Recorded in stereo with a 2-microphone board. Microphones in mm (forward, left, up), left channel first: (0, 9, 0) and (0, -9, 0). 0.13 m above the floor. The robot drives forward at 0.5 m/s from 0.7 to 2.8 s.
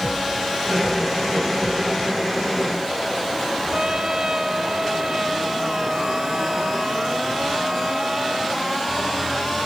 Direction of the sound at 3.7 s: 40° right (ahead or behind).